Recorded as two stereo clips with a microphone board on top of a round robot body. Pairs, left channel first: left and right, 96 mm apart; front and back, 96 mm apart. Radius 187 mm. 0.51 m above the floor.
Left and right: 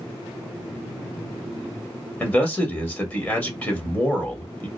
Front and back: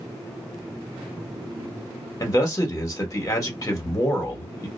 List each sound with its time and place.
2.2 s a man speaking: 30° left, 1.5 m